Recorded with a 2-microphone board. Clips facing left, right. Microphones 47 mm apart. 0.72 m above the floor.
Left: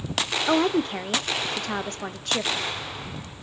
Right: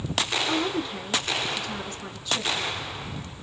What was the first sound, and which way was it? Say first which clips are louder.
A woman speaking: left 5 dB; 55° left (ahead or behind).